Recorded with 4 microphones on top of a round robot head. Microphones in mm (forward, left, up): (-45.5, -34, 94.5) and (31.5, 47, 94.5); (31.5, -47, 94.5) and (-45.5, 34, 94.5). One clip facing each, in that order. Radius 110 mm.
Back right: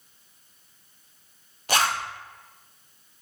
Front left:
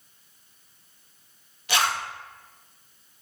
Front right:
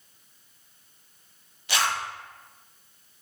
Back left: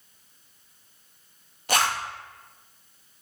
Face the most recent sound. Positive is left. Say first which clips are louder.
# back right 1 dB, back left 2 dB
turn(degrees=180)